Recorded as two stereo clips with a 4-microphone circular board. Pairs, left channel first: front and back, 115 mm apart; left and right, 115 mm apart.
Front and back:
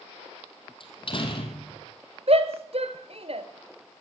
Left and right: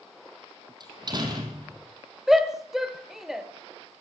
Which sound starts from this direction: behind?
A shout, at 2.3 s.